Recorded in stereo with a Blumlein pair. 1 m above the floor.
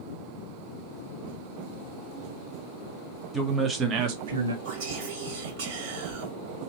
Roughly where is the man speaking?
Ahead.